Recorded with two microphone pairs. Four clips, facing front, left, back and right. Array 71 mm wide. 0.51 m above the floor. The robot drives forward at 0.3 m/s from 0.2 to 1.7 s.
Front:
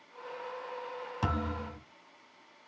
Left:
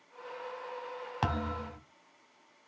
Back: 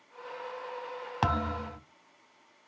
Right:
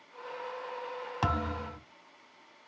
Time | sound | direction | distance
1.2 | a thud | straight behind | 1.4 m